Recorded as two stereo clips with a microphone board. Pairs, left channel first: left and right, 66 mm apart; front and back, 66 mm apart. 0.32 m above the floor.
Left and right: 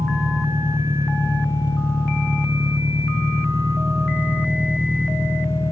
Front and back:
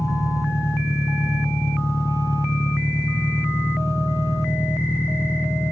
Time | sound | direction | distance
0.0 | an engine running | 40° right | ?